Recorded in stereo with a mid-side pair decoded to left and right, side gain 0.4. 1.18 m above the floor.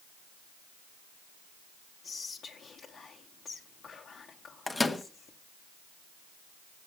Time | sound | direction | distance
2.0 | whispering | 60° left | 1.2 m
4.7 | a microwave | 20° left | 1.1 m